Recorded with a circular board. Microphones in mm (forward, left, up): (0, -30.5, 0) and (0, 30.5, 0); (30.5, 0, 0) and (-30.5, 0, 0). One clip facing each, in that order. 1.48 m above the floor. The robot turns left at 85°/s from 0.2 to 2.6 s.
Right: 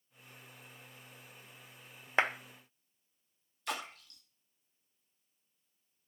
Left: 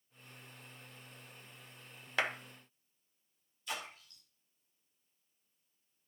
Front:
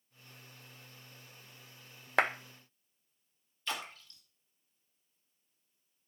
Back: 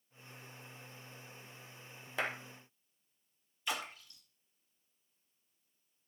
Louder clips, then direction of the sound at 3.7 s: Right 3 dB, even; 105° right.